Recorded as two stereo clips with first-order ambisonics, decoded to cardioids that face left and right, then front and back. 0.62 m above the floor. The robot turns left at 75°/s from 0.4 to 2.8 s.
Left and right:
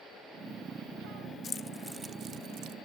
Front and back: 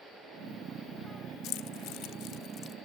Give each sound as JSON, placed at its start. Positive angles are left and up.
{"t": 1.4, "sound": "keys jangling", "azimuth_deg": 30, "distance_m": 1.1}